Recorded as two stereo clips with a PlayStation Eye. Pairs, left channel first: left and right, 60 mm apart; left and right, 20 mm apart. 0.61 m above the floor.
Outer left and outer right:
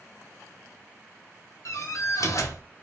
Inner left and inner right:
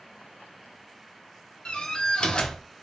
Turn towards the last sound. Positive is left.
turn(degrees=65)  # may be behind; listen again after turning